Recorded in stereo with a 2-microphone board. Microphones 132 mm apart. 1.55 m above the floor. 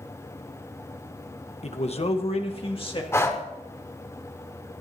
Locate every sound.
1.6 s a man speaking: 55° left (ahead or behind), 1.0 m; by 3.0 s 40° left (ahead or behind), 2 m
3.1 s breathing: 20° left (ahead or behind), 1.2 m